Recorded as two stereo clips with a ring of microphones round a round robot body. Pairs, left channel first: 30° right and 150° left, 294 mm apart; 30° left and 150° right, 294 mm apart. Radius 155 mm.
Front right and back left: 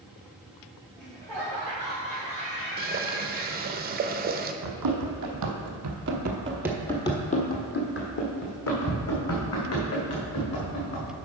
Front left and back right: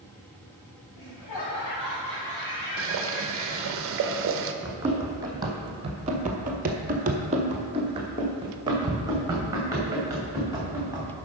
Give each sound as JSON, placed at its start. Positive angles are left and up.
{"t": 1.0, "sound": "laughter", "azimuth_deg": 50, "distance_m": 3.5}
{"t": 2.8, "sound": "boiling", "azimuth_deg": -165, "distance_m": 0.8}
{"t": 4.6, "sound": "running footsteps", "azimuth_deg": 130, "distance_m": 2.0}